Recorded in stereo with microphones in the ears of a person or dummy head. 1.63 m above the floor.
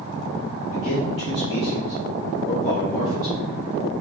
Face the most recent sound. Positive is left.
turn(degrees=20)  # may be behind; listen again after turning